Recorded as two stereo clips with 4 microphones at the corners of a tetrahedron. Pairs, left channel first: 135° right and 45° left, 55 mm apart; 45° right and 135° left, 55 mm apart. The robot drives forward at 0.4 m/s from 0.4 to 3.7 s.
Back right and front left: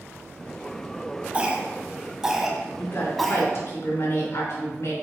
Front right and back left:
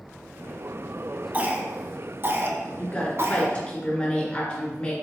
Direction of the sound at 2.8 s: 110° right.